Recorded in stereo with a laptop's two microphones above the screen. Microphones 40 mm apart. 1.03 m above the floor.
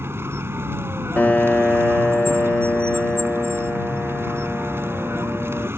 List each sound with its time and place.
0.0 s a vehicle: 85° right
1.2 s a piano: 40° left (ahead or behind)